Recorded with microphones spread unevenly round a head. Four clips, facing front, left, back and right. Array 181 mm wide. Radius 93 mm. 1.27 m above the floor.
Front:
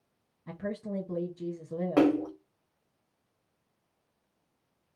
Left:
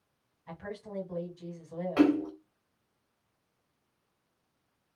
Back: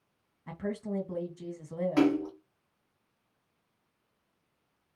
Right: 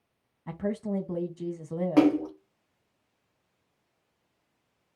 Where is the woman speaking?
90° right, 2.0 m.